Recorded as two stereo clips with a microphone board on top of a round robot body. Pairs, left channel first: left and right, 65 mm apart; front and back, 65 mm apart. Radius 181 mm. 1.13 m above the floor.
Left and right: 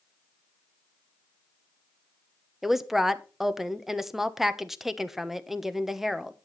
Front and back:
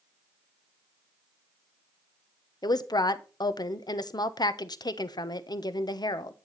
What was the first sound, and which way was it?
A woman speaking, 5° right.